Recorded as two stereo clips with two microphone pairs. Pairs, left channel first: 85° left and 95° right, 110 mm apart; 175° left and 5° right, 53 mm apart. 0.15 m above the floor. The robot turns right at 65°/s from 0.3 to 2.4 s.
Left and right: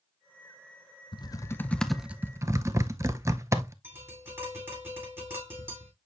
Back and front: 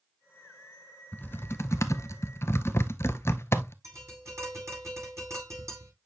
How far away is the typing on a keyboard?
About 0.7 m.